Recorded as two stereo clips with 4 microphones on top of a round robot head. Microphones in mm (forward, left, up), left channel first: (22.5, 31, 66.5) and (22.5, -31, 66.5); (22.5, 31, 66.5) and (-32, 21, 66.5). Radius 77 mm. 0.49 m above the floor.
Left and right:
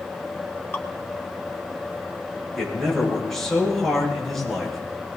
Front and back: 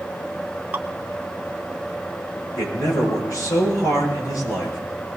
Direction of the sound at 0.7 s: 140° left.